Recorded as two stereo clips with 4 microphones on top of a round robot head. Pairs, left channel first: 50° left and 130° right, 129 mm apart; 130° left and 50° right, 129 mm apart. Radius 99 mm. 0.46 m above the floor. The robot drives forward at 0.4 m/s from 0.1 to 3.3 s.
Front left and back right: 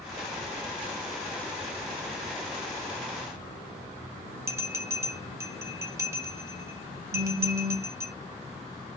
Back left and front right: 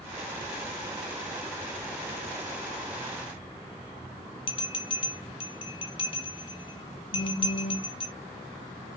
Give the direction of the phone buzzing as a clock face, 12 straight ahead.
6 o'clock.